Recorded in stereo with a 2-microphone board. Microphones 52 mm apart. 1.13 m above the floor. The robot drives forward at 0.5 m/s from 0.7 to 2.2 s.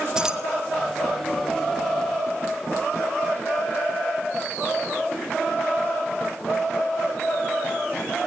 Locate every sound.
0.1 s keys jangling: 10° right (ahead or behind), 1.5 m